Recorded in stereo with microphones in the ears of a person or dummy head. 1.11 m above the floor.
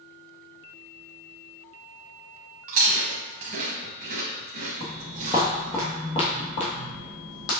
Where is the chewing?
40° right (ahead or behind), 1.1 m.